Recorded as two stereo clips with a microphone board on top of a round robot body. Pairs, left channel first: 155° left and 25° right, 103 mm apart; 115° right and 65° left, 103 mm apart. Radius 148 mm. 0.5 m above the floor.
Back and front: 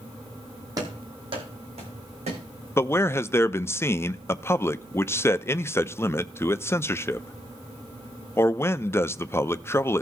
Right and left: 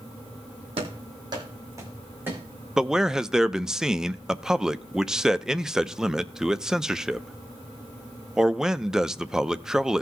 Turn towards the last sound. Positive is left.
turn(degrees=145)